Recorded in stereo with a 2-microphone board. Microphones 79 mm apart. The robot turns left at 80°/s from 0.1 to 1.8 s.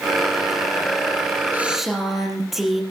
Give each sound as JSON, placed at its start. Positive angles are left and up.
{"t": 1.5, "sound": "a woman speaking", "side_deg": -25, "distance_m": 5.0}